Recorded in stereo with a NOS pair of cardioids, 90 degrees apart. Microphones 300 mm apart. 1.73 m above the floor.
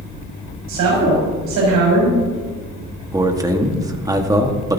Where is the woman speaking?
70° right, 5.5 m.